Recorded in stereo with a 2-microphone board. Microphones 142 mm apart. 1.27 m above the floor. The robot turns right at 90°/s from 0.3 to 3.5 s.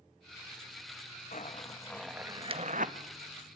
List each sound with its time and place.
1.3 s a zipper: 65° left (ahead or behind), 1.2 m; by 3.0 s 80° right, 1.2 m